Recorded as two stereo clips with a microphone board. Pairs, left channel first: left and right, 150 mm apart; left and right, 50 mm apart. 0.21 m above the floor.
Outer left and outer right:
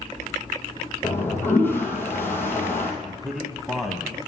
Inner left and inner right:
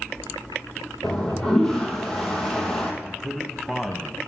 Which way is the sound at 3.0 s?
Centre (ahead or behind).